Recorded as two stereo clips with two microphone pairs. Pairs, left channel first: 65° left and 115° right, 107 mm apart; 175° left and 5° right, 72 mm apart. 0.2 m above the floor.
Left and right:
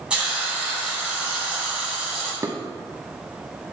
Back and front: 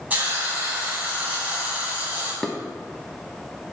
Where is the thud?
I don't hear a thud.